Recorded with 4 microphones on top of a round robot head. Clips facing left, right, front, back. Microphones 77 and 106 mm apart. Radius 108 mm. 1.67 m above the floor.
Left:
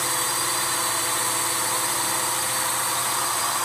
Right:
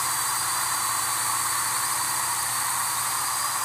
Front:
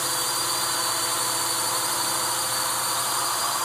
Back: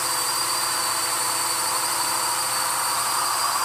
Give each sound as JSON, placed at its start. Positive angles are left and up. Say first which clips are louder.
{"t": 0.0, "sound": "a drone", "louder": "left 1 dB, back 2 dB", "azimuth_deg": 80}